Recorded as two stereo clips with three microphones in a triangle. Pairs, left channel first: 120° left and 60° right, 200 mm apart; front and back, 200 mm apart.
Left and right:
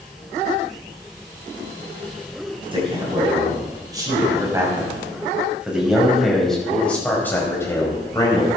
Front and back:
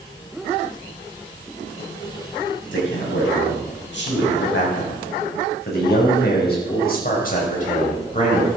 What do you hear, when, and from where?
2.7 s a man speaking: 5° left, 5 m; by 8.5 s 55° left, 3.5 m